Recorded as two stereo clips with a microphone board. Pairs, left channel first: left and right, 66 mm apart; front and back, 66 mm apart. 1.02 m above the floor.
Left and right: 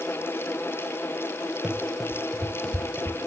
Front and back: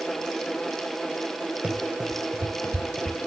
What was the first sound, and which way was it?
Running footsteps, 140° right.